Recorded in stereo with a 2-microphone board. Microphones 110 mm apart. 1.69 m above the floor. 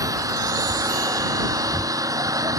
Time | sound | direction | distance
0.0 | an engine running | 30° right (ahead or behind) | ?